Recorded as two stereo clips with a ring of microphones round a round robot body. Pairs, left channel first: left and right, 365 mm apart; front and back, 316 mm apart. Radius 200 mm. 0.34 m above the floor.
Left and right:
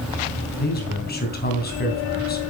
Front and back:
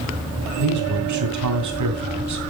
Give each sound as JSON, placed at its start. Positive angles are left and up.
{"t": 0.6, "sound": "a man speaking", "azimuth_deg": 155, "distance_m": 2.5}